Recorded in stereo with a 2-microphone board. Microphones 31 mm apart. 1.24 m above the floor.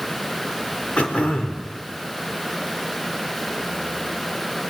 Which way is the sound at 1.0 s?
45° left (ahead or behind).